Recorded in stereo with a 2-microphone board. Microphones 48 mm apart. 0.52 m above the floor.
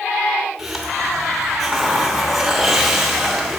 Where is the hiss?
5° right (ahead or behind), 1.1 m.